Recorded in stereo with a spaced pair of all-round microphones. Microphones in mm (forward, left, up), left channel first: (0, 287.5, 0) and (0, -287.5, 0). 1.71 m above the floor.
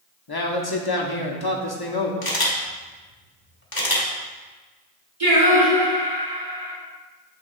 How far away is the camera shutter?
About 1.4 m.